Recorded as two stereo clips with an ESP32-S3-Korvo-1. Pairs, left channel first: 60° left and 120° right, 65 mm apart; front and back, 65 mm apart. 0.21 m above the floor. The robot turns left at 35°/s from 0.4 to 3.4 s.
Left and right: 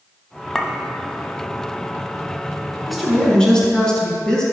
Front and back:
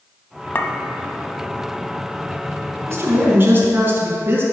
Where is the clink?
20° right, 0.7 m; by 0.7 s 25° right, 0.7 m.